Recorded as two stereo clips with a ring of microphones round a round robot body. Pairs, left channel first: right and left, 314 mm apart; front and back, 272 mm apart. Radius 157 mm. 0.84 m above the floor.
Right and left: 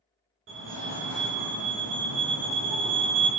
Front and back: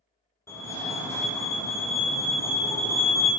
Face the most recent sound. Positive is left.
turn(degrees=75)